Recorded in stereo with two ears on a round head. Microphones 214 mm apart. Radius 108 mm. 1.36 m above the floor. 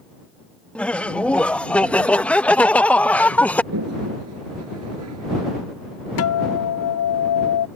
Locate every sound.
0.8 s laughter: 5° left (ahead or behind)
3.7 s a toilet flushing: 65° right (ahead or behind)
6.2 s a guitar: 60° left (ahead or behind)